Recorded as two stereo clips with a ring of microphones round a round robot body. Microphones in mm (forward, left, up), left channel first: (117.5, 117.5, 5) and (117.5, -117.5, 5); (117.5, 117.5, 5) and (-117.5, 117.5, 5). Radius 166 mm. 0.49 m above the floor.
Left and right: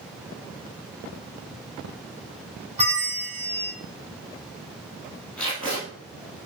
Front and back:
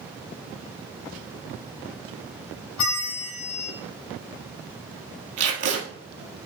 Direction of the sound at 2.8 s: 30° right.